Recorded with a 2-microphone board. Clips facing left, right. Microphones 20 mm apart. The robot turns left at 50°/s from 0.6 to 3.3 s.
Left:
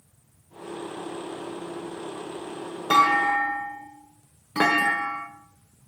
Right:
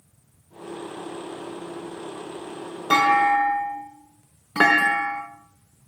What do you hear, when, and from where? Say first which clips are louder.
2.9 s a clunk: right 2 dB; 30° right (ahead or behind), 1.0 m; by 5.2 s 40° right (ahead or behind), 1.0 m